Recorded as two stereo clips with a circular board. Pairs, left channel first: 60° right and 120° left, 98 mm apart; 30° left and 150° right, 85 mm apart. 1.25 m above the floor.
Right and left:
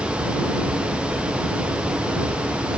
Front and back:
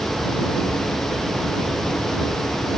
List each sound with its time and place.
Only background noise.